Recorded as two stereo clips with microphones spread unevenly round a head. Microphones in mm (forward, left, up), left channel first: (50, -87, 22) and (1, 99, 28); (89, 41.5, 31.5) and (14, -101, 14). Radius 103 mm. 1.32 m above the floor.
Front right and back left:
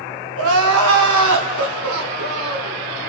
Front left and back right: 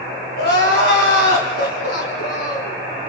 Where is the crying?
105° left, 3 m.